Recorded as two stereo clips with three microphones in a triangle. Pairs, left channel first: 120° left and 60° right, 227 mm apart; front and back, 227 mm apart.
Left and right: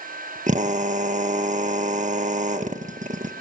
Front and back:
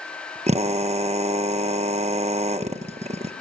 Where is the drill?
115° right, 1.4 m.